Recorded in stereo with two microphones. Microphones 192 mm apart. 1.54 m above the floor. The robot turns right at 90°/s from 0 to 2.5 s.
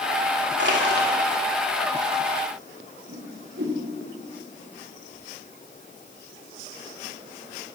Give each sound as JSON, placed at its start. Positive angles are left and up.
{"t": 0.6, "sound": "crushing", "azimuth_deg": -100, "distance_m": 2.5}
{"t": 3.1, "sound": "a whoosh", "side_deg": -90, "distance_m": 3.5}